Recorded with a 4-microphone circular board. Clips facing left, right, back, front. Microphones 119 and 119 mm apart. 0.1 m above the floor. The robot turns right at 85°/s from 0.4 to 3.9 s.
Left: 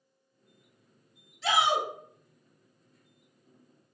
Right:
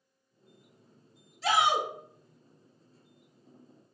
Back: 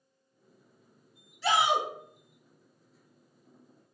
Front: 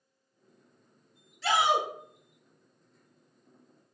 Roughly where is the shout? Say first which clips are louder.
Even, even; right.